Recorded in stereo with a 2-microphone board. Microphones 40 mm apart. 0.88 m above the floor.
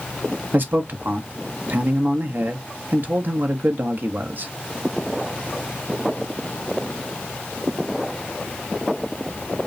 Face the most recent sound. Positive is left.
turn(degrees=-60)  # may be behind; listen again after turning